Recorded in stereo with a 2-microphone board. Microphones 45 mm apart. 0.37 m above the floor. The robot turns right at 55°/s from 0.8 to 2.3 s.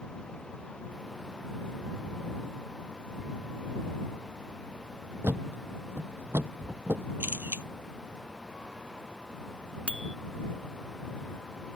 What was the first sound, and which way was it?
A thud, 65° right (ahead or behind).